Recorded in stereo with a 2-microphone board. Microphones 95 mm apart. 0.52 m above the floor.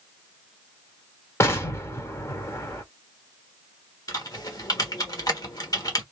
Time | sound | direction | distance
1.4 | an explosion | 30° left (ahead or behind) | 1.1 m
4.1 | typing on a keyboard | 40° left (ahead or behind) | 1.4 m